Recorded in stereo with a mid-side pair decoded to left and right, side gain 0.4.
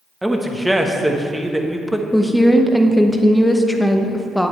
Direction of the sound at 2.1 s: 5° left.